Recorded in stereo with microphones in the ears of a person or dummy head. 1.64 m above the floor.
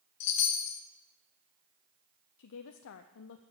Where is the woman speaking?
65° left (ahead or behind), 0.5 m.